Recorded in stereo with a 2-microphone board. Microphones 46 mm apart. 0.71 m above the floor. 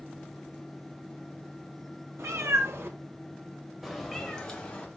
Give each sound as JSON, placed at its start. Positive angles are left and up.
{"t": 2.2, "sound": "a cat meowing", "side_deg": -90, "distance_m": 1.7}